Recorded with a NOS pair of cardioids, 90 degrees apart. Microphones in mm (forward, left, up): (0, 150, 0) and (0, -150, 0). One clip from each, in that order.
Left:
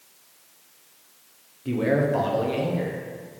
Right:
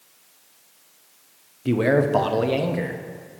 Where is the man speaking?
40° right, 0.9 m.